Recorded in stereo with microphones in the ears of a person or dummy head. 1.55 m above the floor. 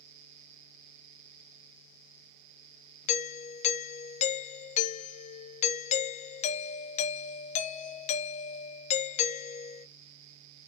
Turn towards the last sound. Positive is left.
turn(degrees=40)  # may be behind; listen again after turning